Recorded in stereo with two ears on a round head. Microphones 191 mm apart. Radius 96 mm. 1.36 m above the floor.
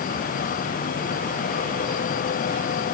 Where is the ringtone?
No ringtone in this recording.